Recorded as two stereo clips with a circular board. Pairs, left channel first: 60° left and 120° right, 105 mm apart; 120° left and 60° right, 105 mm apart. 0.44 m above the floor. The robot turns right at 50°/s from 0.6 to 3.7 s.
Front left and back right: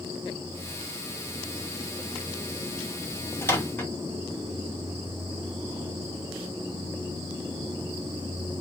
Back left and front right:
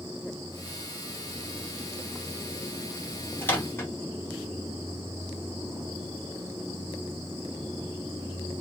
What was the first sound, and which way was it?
A microwave, 80° left.